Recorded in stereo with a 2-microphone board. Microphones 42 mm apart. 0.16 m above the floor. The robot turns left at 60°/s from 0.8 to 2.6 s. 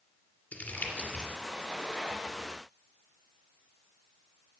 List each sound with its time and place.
0.5 s crumpling: 35° left (ahead or behind), 2.5 m; by 1.3 s 15° left (ahead or behind), 2.5 m